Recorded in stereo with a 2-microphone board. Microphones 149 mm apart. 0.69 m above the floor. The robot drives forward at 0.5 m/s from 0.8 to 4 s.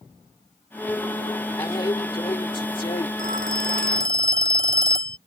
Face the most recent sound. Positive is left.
turn(degrees=75)  # may be behind; listen again after turning